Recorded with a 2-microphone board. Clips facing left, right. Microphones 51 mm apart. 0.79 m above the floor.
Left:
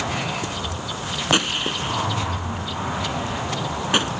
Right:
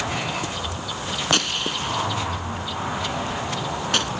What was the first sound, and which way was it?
A gunshot, 20° left (ahead or behind).